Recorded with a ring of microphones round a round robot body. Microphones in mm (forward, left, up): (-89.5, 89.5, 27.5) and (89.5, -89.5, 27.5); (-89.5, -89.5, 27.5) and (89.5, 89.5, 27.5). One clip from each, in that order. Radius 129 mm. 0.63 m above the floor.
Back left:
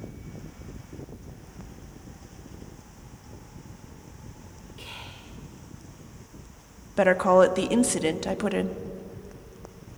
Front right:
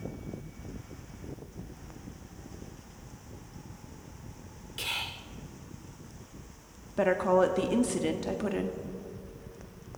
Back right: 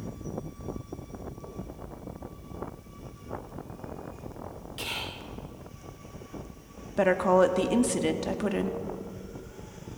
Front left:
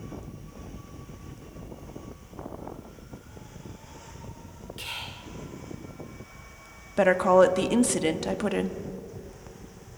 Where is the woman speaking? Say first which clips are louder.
Back left 6 dB, front left 3 dB; 105° left, 1.1 m.